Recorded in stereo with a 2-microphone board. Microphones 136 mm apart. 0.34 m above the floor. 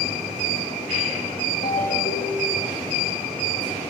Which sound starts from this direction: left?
A ringtone, at 1.6 s.